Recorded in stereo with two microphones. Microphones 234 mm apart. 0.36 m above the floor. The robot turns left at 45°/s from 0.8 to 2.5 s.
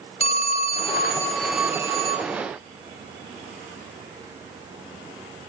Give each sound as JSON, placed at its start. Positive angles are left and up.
{"t": 0.2, "sound": "a phone ringing", "side_deg": 25, "distance_m": 1.3}